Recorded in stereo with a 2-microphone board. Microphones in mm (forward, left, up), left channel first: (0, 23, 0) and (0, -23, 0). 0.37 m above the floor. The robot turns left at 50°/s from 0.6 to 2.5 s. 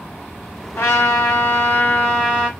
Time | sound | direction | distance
0.8 | a trumpet | 105° left | 1.5 m